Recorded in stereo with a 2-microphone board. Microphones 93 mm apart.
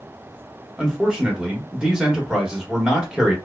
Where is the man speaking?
10° right (ahead or behind), 0.9 m.